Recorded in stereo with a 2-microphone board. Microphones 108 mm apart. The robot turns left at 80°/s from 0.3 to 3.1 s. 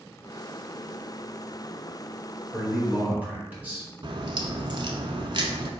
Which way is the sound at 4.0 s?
55° right (ahead or behind).